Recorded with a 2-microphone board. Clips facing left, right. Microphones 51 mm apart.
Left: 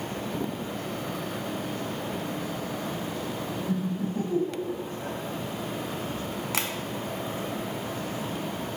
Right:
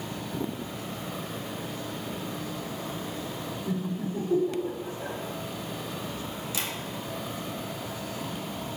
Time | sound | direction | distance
3.7 | laughter | 25° right (ahead or behind) | 2.0 m
6.5 | tapping | 65° left (ahead or behind) | 0.6 m